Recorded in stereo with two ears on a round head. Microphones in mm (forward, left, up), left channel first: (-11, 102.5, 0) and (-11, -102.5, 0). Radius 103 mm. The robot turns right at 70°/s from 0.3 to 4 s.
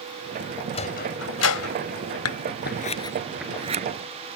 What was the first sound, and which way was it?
A sliding door, 25° left (ahead or behind).